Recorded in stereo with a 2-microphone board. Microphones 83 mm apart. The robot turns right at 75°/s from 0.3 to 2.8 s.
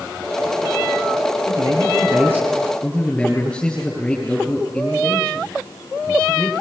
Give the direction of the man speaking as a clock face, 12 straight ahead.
3 o'clock.